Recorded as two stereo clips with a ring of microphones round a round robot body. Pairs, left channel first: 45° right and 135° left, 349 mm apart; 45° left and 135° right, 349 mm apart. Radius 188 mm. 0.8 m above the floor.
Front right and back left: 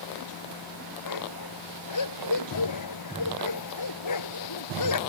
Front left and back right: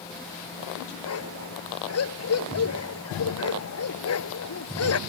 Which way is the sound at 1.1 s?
5° right.